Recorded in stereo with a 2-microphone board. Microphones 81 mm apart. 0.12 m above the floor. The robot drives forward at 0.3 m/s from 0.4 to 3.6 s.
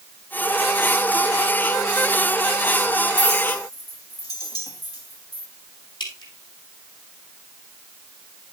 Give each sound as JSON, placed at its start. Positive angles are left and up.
{"t": 3.2, "sound": "a clink", "side_deg": 55, "distance_m": 2.5}
{"t": 6.0, "sound": "dripping", "side_deg": 75, "distance_m": 3.0}